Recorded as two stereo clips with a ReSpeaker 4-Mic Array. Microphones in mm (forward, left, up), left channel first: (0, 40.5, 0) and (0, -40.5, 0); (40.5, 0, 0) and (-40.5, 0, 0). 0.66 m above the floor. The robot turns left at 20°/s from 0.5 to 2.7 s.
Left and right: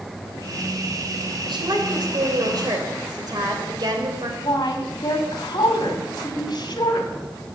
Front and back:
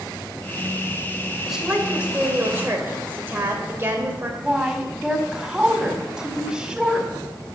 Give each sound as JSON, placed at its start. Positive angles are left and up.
{"t": 1.4, "sound": "a woman speaking", "azimuth_deg": -95, "distance_m": 2.5}
{"t": 4.4, "sound": "a woman speaking", "azimuth_deg": 100, "distance_m": 1.9}